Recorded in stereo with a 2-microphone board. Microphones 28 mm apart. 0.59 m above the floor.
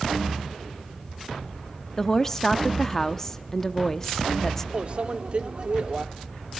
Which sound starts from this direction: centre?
A woman speaking, at 2.0 s.